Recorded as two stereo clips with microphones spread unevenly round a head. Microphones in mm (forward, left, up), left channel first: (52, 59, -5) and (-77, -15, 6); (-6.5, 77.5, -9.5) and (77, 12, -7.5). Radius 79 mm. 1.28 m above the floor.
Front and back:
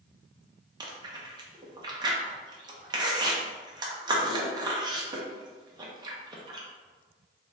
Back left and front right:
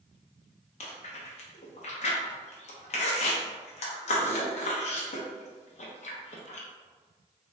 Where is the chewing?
150° left, 0.7 m.